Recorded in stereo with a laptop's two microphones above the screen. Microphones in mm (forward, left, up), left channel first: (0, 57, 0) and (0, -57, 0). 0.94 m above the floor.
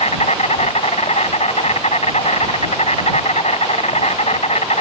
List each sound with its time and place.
0.0 s an insect: 70° left (ahead or behind)